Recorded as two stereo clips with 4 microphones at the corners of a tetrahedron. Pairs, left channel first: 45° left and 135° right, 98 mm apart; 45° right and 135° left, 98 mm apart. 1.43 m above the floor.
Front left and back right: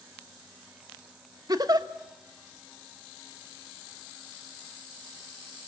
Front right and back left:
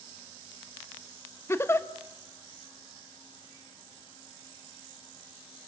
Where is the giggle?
100° right, 0.9 m.